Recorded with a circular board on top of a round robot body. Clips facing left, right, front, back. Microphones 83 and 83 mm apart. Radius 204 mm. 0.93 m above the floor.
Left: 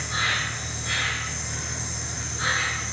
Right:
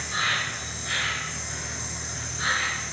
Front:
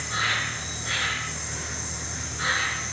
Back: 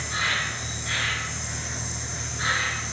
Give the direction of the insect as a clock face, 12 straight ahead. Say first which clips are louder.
Left 1 dB, even; 10 o'clock.